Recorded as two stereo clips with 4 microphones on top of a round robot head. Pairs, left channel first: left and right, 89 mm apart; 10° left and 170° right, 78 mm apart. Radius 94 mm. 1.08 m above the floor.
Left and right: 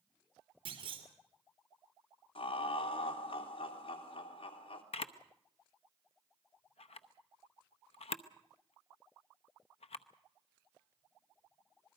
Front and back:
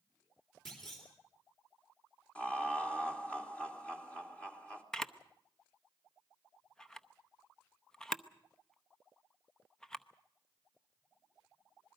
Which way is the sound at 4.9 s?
95° left.